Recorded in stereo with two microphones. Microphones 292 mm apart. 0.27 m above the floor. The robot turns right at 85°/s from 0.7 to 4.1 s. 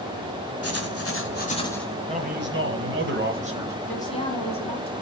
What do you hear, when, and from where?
0.6 s writing: 80° left, 1.3 m; by 1.9 s straight behind, 1.3 m
2.1 s a man speaking: 150° right, 1.2 m; by 3.8 s 10° right, 1.2 m
3.9 s a woman speaking: 5° left (ahead or behind), 1.7 m; by 4.9 s 20° left (ahead or behind), 1.7 m